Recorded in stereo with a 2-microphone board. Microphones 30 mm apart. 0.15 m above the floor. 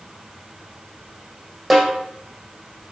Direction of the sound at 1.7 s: 5° right (ahead or behind).